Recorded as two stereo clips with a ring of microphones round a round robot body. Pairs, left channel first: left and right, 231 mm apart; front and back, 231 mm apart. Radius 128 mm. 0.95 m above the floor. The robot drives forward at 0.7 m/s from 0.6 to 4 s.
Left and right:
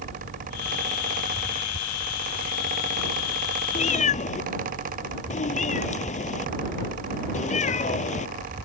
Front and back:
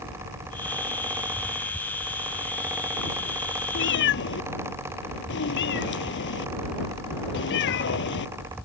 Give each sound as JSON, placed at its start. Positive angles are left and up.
{"t": 3.8, "sound": "a cat meowing", "azimuth_deg": 30}